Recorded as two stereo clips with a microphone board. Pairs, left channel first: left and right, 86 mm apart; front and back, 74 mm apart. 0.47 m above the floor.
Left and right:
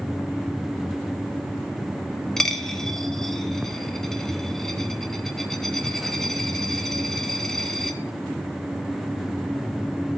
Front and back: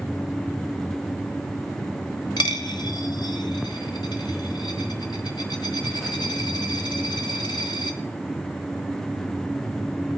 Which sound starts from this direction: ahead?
A dropped coin, at 2.4 s.